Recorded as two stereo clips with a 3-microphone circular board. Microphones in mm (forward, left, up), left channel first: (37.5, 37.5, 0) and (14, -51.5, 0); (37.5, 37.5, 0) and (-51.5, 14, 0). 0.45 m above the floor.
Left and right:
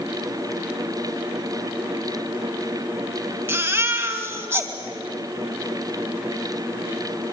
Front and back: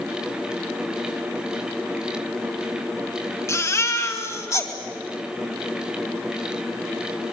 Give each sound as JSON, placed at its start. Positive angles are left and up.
{"t": 3.5, "sound": "a baby crying", "azimuth_deg": -40, "distance_m": 2.5}